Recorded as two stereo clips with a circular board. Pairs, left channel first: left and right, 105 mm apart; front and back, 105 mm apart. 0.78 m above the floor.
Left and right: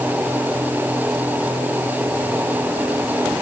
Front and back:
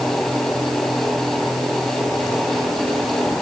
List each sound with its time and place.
Only background noise.